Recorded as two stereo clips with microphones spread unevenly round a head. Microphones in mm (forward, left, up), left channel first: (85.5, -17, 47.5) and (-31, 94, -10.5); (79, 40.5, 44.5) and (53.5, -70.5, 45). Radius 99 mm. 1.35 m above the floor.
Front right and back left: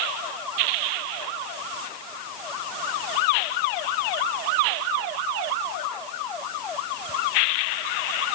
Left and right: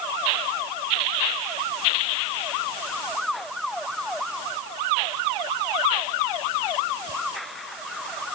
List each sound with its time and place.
Only background noise.